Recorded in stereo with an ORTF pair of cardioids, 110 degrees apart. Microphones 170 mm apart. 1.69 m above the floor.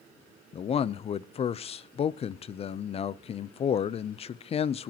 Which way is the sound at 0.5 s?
40° left.